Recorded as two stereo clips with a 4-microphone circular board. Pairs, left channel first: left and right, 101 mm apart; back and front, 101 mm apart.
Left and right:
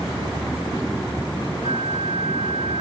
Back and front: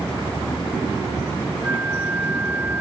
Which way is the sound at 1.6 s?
75° right.